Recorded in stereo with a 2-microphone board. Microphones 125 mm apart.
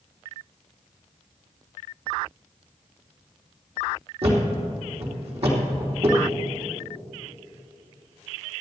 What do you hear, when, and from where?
4.2 s a thud: 60° right (ahead or behind), 3 m